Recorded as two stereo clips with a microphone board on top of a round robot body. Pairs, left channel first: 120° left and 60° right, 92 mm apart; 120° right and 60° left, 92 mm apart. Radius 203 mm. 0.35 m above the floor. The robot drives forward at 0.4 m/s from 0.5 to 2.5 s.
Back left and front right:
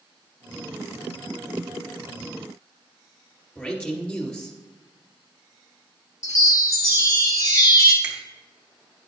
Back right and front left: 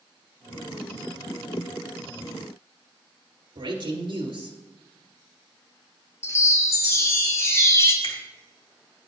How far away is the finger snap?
About 2.5 m.